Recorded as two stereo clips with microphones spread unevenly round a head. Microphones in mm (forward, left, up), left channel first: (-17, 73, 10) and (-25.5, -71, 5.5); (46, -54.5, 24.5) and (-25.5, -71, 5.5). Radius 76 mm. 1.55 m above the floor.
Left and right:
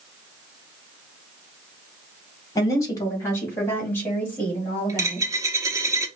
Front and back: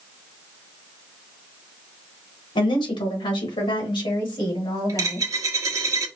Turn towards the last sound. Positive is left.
turn(degrees=-145)